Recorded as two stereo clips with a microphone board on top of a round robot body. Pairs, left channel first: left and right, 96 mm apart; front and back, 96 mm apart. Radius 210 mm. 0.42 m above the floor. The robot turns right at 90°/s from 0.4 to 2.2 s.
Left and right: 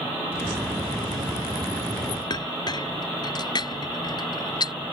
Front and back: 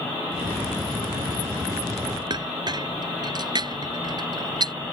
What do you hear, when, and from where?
2.3 s a clink: 135° left